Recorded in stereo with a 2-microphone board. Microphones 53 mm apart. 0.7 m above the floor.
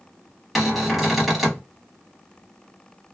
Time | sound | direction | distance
0.6 | a cupboard door | centre (ahead or behind) | 1.0 m